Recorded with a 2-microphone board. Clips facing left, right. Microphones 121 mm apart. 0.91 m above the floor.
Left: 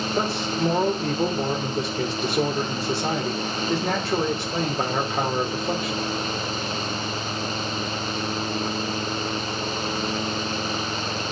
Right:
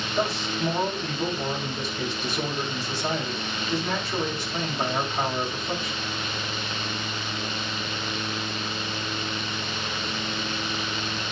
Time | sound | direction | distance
0.2 | a man speaking | 70° left (ahead or behind) | 3 m